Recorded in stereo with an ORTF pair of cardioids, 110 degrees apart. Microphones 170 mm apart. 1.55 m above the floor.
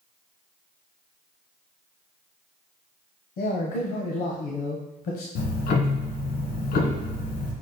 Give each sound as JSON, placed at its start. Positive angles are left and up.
{"t": 3.4, "sound": "a man speaking", "azimuth_deg": 65, "distance_m": 1.0}
{"t": 5.3, "sound": "ticking", "azimuth_deg": 70, "distance_m": 1.3}